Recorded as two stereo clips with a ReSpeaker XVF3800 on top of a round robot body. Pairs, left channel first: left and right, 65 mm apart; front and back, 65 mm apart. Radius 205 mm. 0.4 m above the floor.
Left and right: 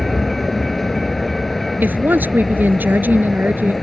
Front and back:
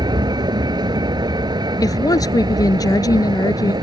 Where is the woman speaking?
30° right.